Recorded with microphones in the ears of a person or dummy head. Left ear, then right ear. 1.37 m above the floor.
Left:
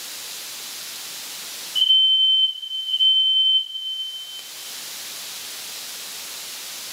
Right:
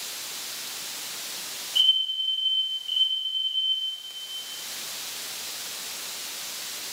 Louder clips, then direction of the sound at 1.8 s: Left 6 dB; 5° right (ahead or behind).